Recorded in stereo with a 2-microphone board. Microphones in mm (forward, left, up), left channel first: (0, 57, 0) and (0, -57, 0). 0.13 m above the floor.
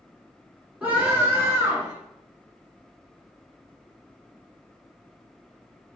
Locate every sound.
0.8 s a scream: 15° right (ahead or behind), 1.4 m; by 1.9 s 30° right (ahead or behind), 1.5 m